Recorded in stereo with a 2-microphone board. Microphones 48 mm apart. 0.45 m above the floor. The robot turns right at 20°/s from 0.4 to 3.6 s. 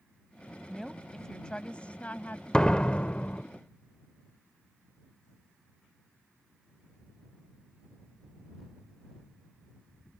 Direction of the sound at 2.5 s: 20° left (ahead or behind).